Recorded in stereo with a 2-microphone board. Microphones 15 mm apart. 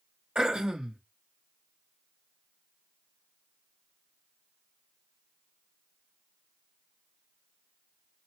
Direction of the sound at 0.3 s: 90° right.